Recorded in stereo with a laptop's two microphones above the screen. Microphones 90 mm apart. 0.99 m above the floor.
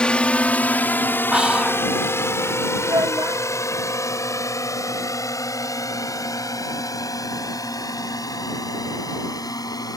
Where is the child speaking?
45° right (ahead or behind).